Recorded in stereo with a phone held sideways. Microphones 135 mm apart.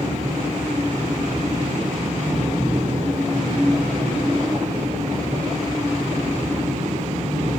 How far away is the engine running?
About 5.5 m.